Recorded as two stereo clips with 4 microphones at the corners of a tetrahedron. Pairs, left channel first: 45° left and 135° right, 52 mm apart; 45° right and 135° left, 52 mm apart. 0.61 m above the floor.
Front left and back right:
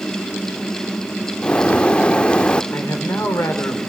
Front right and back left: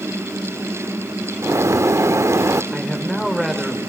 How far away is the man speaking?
About 2.5 m.